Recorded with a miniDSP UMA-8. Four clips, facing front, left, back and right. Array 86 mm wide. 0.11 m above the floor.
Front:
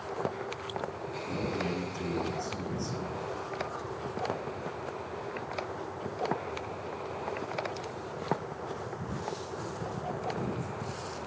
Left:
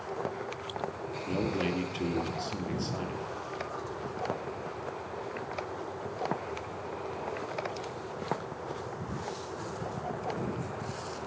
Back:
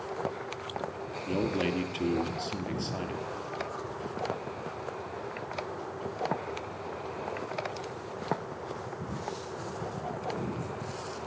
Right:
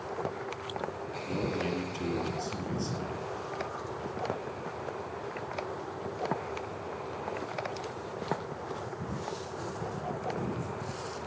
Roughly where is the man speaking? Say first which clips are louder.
Left 2 dB, back 4 dB; behind.